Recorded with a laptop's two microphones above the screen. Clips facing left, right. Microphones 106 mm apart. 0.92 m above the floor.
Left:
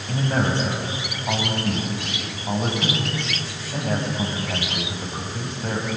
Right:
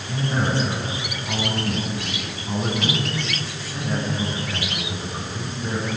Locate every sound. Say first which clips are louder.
0.1 s a man speaking: left 1 dB; 75° left (ahead or behind), 5 m